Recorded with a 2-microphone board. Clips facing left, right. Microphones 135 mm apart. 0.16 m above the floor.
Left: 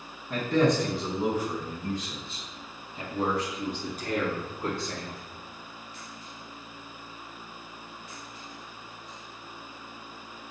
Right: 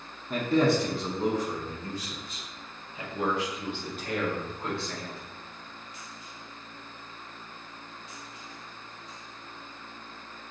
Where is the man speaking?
15° right (ahead or behind), 1.2 m; by 5.2 s 45° left (ahead or behind), 2.5 m.